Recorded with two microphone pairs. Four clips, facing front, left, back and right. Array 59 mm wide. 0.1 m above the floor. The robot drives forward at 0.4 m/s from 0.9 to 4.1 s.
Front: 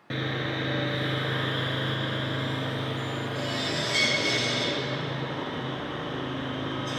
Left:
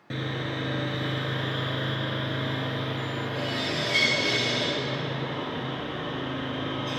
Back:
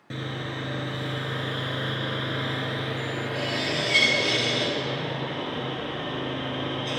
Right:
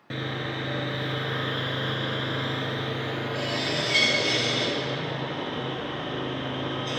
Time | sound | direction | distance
0.1 | sawing | 15° right | 0.7 m